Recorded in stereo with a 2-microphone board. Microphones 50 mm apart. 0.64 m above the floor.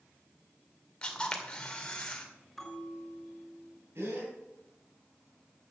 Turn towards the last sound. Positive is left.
turn(degrees=-60)  # may be behind; listen again after turning